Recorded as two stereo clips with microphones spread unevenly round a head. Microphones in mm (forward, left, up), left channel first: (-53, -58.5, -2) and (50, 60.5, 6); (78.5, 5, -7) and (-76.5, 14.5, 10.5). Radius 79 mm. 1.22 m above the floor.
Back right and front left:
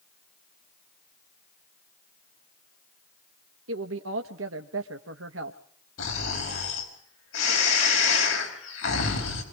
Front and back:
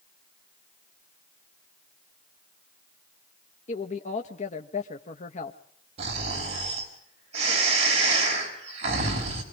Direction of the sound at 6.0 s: 130° right.